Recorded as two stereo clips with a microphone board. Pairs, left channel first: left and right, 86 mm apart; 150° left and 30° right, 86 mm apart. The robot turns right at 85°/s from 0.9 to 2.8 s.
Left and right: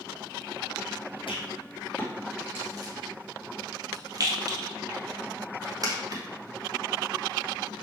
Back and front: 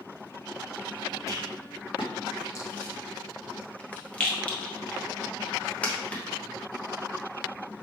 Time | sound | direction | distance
1.3 | a rattle | 95° left | 0.9 m